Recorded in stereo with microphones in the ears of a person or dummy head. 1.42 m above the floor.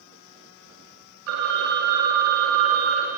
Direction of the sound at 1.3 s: 60° right (ahead or behind).